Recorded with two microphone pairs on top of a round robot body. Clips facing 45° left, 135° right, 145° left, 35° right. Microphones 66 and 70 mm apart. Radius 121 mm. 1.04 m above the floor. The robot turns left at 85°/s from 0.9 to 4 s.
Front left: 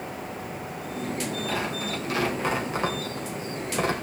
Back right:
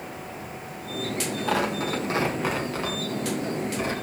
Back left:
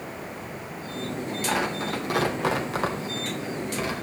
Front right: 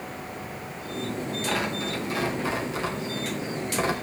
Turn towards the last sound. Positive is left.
turn(degrees=5)